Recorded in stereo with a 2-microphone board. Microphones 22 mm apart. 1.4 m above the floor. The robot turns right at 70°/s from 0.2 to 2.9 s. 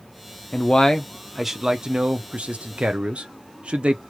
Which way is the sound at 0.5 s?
130° left.